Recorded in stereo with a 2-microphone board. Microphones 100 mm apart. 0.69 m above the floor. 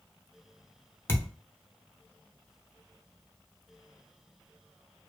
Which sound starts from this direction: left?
A thud, at 1.1 s.